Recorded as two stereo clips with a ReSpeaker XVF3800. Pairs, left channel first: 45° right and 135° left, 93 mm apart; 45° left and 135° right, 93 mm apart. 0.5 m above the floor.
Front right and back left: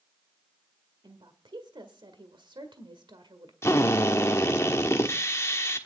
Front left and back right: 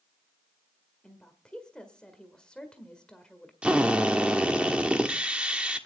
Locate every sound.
1.0 s a woman speaking: 125° left, 1.6 m
3.6 s a drill: 70° right, 1.3 m